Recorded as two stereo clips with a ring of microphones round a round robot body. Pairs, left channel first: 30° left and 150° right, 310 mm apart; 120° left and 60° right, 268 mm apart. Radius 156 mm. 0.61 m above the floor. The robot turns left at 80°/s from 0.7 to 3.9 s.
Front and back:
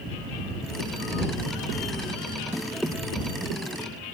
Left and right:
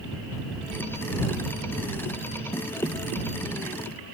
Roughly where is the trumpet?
I don't hear a trumpet.